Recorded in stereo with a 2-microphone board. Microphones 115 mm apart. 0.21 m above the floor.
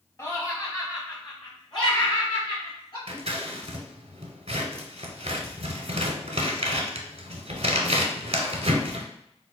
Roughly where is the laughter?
Left.